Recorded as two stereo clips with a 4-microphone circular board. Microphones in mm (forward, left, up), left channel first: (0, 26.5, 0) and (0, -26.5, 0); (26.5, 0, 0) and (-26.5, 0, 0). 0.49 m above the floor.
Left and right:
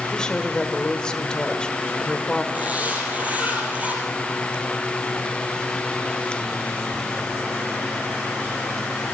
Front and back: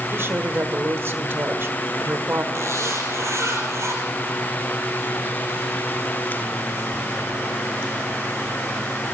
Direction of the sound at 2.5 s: 155° right.